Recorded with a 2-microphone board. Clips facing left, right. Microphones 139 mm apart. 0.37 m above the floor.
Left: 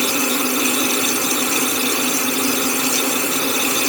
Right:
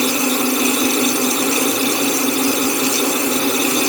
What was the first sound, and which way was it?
Only background noise.